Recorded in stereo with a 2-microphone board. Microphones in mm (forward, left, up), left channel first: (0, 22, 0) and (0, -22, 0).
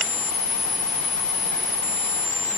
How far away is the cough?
I don't hear a cough.